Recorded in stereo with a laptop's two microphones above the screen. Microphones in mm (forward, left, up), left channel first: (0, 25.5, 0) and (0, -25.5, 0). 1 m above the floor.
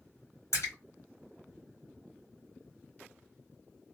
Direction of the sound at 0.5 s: 80° left.